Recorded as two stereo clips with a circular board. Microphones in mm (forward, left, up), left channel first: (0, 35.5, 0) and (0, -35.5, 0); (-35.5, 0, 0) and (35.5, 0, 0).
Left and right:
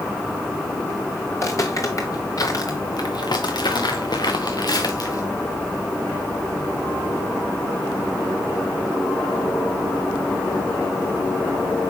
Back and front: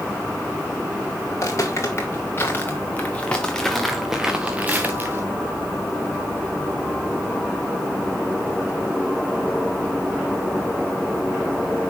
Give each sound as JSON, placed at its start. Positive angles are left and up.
{"t": 1.3, "sound": "footsteps", "azimuth_deg": 135, "distance_m": 3.0}